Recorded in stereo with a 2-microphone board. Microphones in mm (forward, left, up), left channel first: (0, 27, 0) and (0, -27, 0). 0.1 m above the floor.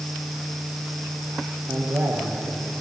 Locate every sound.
1.7 s a man speaking: 55° right (ahead or behind), 3 m